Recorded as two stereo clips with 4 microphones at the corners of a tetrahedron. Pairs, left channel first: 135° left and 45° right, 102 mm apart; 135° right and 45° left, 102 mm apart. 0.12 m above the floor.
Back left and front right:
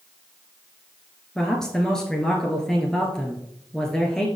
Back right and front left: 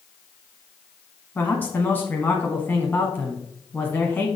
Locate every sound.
1.4 s a man speaking: 155° right, 1.1 m